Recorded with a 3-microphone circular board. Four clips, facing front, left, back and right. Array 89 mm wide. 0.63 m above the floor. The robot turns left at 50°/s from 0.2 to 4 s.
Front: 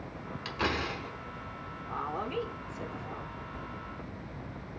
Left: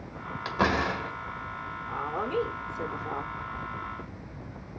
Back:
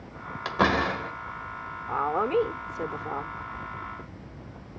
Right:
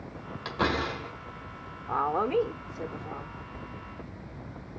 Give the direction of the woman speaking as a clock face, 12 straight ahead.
4 o'clock.